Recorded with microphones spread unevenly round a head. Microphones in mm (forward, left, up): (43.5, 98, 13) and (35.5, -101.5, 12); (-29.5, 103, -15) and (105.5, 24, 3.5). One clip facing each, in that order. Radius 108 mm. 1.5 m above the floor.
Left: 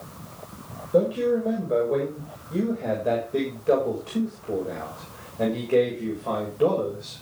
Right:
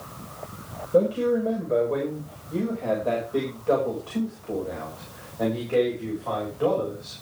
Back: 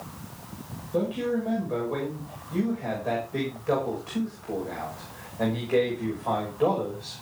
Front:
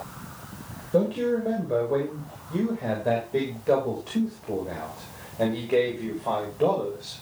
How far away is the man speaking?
About 6.5 m.